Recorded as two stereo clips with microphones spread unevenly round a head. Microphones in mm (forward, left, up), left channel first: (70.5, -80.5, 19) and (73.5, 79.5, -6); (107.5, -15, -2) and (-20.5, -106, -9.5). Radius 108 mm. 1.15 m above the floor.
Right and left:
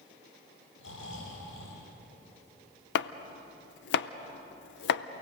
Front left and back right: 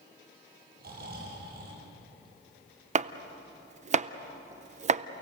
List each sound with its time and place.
0.8 s snoring: 115° right, 10 m
3.0 s chopping: 105° right, 0.6 m